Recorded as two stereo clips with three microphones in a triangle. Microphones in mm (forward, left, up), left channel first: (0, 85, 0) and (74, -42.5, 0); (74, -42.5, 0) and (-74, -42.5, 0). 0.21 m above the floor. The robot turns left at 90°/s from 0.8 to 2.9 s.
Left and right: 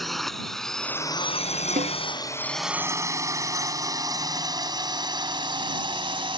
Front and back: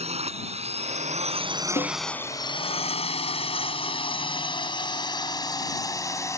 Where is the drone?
150° right; by 6.4 s 55° right.